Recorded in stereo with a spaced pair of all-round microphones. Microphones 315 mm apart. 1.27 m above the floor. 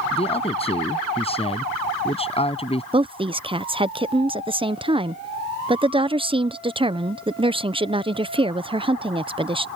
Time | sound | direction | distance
0.1 | a man speaking | 20° left (ahead or behind) | ?
2.9 | a woman speaking | 15° right (ahead or behind) | ?